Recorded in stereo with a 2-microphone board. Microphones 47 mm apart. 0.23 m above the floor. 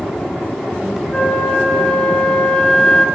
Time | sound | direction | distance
1.1 | a flute | 20° left (ahead or behind) | 1.0 m